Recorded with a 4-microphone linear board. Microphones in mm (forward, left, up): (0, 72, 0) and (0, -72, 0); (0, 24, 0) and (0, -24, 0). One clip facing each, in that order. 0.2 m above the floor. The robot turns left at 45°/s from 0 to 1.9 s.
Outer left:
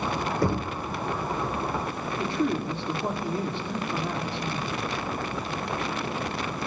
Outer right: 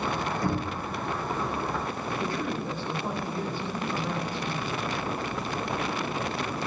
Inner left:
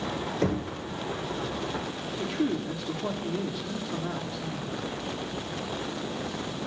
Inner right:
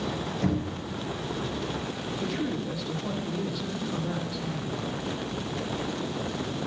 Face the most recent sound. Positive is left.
turn(degrees=25)  # may be behind; listen again after turning